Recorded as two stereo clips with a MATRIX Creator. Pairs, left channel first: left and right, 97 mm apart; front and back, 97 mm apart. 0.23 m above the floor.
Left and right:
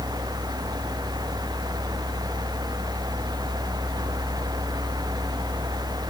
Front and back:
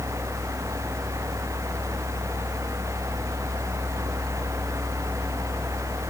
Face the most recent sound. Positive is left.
No sound to turn to.